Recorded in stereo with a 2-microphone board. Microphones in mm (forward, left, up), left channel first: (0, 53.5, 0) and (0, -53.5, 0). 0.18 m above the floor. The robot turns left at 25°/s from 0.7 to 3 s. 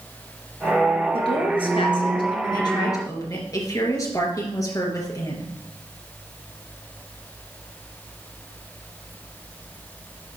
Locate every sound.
1.1 s a woman speaking: 85° left, 2.5 m; by 5.5 s 40° left, 2.5 m